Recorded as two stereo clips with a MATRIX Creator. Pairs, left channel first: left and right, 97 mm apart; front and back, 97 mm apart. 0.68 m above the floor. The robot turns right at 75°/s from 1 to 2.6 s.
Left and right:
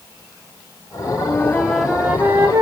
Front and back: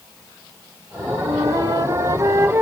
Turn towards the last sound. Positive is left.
turn(degrees=-125)